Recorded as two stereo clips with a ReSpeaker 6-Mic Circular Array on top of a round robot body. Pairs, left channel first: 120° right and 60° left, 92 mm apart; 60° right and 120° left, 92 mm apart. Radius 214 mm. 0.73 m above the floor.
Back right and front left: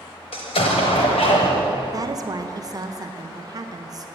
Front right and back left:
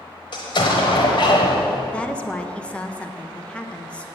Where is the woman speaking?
15° left, 0.8 m.